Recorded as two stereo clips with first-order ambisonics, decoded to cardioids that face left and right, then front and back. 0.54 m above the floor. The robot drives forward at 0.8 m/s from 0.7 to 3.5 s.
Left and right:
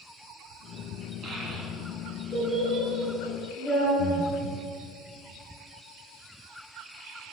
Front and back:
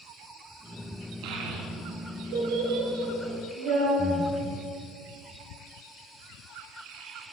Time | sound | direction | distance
1.2 | a child speaking | 160° right | 3.5 m
4.0 | breathing | 75° right | 1.4 m